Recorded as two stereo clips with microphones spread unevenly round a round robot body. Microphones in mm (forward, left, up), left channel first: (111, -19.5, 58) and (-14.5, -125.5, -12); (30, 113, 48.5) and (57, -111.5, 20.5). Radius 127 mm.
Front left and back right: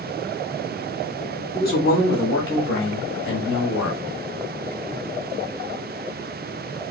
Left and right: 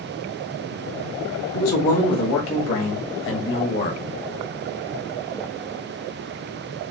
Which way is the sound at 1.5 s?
95° left.